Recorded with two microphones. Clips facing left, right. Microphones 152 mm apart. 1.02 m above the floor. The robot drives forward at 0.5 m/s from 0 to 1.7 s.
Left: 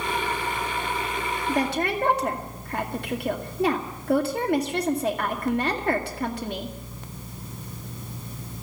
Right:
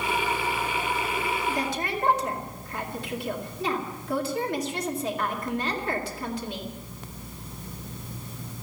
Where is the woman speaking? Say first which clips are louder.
Left 4 dB; 70° left (ahead or behind), 2 m; by 6.8 s 65° left (ahead or behind), 2 m.